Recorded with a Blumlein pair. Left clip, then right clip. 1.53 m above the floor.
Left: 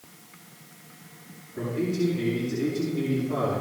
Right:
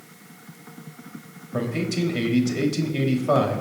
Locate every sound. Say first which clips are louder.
1.5 s a man speaking: right 2 dB; 45° right, 3 m